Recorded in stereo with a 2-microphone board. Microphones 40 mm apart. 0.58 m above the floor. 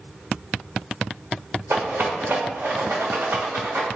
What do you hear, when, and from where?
1.7 s a rattle: 80° right, 1.0 m